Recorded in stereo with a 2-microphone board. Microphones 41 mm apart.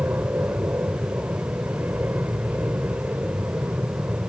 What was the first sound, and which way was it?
An aircraft, 45° right (ahead or behind).